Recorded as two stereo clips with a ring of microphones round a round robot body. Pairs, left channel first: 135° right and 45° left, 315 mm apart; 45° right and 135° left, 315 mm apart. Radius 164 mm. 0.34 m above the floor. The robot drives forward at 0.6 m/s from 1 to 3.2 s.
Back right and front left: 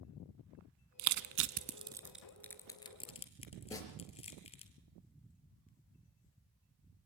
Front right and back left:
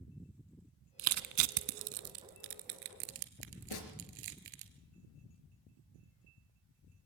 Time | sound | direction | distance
1.0 | crushing | 80° left | 0.7 m
3.7 | a snare drum | 55° right | 3.5 m